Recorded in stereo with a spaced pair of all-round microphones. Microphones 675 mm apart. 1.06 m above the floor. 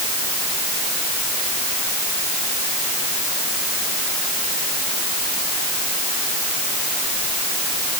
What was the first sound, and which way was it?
Only background noise.